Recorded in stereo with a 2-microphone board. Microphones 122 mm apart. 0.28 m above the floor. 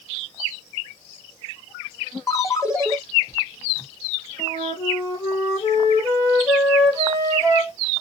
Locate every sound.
2.3 s a ringtone: 25° left (ahead or behind), 1.6 m
4.4 s a flute: 25° left (ahead or behind), 4 m